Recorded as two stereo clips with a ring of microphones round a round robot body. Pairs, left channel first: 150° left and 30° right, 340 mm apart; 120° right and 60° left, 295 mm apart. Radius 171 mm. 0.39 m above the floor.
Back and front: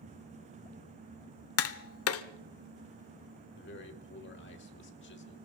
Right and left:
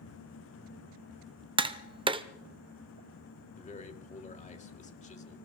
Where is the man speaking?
175° right, 1.7 m.